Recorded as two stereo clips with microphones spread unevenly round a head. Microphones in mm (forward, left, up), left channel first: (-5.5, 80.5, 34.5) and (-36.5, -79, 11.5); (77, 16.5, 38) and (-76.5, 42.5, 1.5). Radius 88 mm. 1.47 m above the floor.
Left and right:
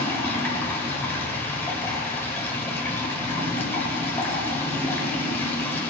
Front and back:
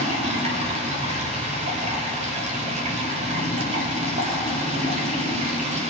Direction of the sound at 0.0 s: 135° left.